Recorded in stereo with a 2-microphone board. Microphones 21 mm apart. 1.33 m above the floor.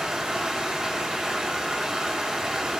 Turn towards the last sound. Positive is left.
turn(degrees=-35)  # may be behind; listen again after turning